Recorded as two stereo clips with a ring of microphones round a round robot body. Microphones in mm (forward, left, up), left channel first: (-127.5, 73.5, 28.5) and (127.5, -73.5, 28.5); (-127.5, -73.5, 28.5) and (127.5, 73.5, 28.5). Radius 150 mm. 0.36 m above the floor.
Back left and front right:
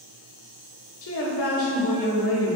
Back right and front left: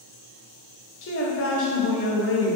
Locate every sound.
1.0 s a woman speaking: 175° left, 1.6 m